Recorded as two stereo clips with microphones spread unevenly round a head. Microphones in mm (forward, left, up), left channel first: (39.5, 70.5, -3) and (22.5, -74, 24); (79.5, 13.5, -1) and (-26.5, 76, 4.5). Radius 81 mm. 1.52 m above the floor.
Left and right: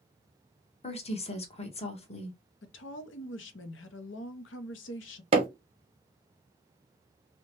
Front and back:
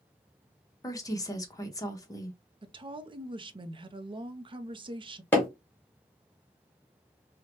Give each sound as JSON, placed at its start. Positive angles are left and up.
{"t": 0.8, "sound": "a woman speaking", "azimuth_deg": 35, "distance_m": 1.0}
{"t": 2.6, "sound": "a woman speaking", "azimuth_deg": 100, "distance_m": 0.6}
{"t": 5.3, "sound": "hammering", "azimuth_deg": -105, "distance_m": 0.9}